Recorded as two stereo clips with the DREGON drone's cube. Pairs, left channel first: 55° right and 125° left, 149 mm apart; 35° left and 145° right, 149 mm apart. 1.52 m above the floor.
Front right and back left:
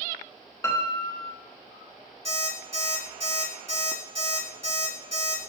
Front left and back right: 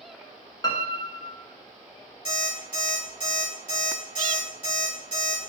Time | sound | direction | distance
0.6 | a piano | straight ahead | 0.6 m
2.2 | an alarm clock | 85° left | 2.5 m